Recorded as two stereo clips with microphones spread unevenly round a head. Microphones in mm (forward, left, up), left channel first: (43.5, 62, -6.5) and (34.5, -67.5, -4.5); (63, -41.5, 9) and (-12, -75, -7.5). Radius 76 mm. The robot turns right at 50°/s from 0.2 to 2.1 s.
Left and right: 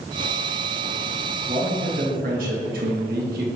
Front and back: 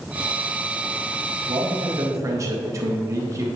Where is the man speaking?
145° right, 1.7 m; by 3.5 s 115° right, 1.7 m.